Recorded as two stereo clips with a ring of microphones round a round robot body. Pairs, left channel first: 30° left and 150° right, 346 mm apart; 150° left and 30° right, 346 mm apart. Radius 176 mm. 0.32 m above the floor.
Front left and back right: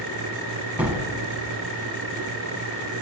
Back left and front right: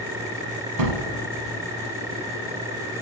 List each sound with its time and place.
0.8 s a gunshot: 65° right, 1.7 m